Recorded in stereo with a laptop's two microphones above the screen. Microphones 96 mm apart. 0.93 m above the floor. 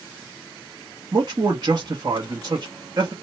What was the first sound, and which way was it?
A man speaking, 45° right (ahead or behind).